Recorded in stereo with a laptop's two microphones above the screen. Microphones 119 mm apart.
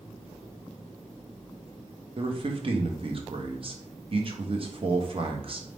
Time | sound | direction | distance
2.2 | a man speaking | 45° right (ahead or behind) | 0.7 m